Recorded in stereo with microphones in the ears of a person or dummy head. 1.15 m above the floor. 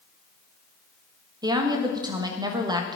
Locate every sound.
1.4 s a woman speaking: 20° right (ahead or behind), 1.2 m